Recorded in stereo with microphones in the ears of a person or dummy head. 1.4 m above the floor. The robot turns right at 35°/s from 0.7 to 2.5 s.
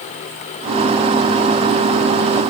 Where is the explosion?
No explosion in this recording.